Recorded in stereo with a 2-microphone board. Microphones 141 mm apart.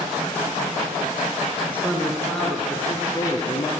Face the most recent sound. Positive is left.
turn(degrees=30)  # may be behind; listen again after turning